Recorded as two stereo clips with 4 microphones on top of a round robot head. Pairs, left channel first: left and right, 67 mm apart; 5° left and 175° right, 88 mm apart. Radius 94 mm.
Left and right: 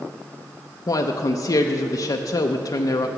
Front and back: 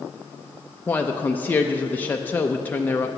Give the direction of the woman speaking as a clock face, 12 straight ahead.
10 o'clock.